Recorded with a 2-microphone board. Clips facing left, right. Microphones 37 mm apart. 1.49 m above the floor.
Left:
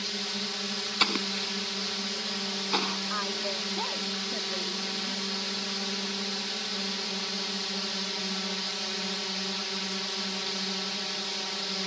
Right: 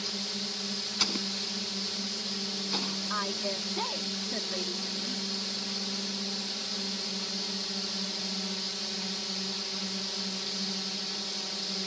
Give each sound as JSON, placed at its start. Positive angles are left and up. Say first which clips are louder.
{"t": 0.0, "sound": "a drone", "louder": "left 3 dB", "side_deg": 30}
{"t": 1.0, "sound": "an explosion", "louder": "left 6 dB", "side_deg": 35}
{"t": 3.1, "sound": "a woman speaking", "louder": "left 1 dB", "side_deg": 0}